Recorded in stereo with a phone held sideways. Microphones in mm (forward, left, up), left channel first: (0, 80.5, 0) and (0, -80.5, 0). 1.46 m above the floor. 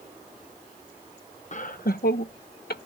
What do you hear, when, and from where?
1.5 s laughter: 50° left (ahead or behind); by 2.9 s 85° left